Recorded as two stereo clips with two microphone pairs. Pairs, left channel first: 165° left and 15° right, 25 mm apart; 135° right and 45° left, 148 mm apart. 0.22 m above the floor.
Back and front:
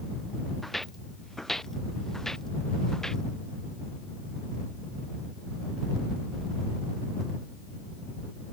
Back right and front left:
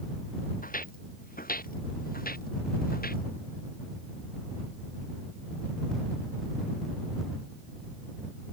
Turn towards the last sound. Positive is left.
turn(degrees=-130)